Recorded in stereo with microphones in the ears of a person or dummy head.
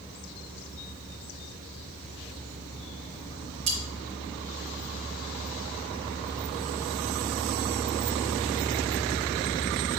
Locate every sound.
3.7 s cutlery clinking: 35° right (ahead or behind), 0.9 m